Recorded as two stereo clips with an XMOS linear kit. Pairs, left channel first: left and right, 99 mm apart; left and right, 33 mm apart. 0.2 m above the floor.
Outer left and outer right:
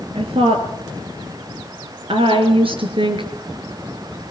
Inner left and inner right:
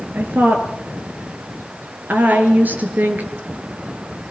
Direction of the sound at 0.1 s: 70° right (ahead or behind).